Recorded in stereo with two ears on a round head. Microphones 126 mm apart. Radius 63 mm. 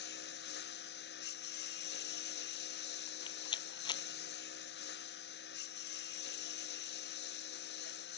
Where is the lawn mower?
85° left.